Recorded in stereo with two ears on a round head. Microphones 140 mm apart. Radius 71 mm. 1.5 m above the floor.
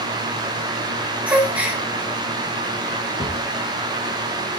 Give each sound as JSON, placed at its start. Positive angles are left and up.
{"t": 1.3, "sound": "a gasp", "side_deg": -10, "distance_m": 1.7}
{"t": 3.2, "sound": "a thud", "side_deg": 25, "distance_m": 4.5}